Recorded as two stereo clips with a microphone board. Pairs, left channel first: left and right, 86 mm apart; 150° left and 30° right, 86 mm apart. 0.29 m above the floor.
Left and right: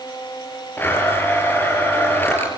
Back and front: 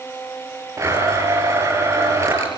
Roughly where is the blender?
Ahead left.